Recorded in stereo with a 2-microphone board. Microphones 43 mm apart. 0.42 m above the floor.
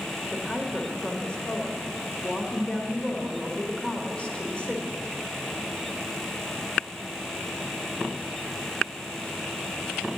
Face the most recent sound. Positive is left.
turn(degrees=25)  # may be behind; listen again after turning